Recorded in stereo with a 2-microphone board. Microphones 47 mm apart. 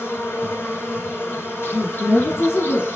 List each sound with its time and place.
0.0 s an insect: 60° left (ahead or behind), 2.5 m
1.7 s a woman speaking: 55° left (ahead or behind), 2.5 m